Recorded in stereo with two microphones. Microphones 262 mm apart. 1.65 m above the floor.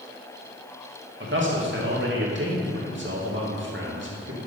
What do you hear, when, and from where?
1.2 s a man speaking: 45° right (ahead or behind), 2.5 m